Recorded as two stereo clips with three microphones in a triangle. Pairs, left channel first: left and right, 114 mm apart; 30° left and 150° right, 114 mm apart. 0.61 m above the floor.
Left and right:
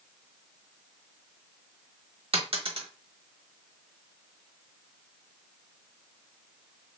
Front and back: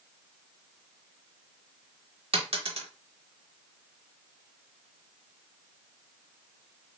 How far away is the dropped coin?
About 0.7 m.